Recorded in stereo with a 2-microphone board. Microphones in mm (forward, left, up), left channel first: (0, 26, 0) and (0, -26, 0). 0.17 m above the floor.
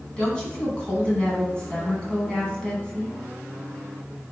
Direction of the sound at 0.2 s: 20° left (ahead or behind).